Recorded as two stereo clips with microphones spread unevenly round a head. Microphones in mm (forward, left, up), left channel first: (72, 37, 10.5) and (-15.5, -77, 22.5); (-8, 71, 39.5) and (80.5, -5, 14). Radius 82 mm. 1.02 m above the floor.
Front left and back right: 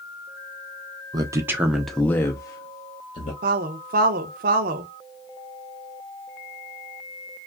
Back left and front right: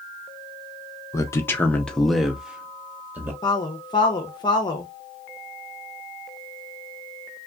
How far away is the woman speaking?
About 0.7 m.